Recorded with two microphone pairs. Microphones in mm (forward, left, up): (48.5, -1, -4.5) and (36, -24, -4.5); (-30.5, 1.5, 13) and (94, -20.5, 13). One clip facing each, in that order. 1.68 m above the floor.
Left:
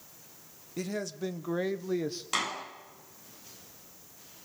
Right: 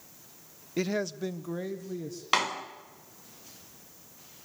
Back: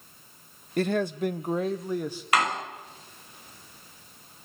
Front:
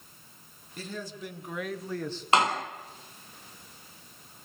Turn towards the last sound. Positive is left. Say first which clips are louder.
# right 5 dB, front 2 dB
turn(degrees=-75)